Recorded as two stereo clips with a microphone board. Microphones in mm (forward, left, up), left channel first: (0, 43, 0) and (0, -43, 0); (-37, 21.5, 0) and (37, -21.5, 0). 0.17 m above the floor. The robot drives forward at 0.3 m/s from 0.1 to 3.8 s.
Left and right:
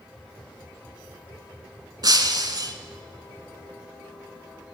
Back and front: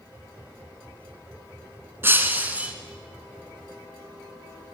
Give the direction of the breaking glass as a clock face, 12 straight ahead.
3 o'clock.